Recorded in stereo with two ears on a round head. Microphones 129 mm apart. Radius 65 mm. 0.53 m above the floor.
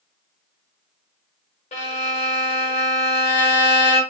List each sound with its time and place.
1.7 s a violin: 45° left (ahead or behind), 1.1 m